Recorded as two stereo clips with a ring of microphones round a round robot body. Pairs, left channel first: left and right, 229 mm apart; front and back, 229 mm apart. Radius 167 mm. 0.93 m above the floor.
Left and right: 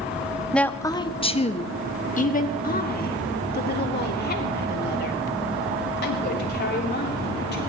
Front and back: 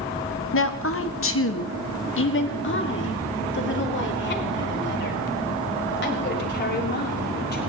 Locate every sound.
0.5 s a woman speaking: 5° left, 1.2 m; by 7.7 s 45° left, 8 m